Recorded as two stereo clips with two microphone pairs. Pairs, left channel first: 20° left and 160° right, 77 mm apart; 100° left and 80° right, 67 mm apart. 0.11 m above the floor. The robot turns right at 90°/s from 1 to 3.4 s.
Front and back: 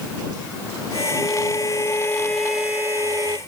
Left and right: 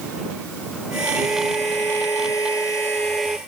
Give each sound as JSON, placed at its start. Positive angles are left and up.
{"t": 1.1, "sound": "a violin", "azimuth_deg": -10}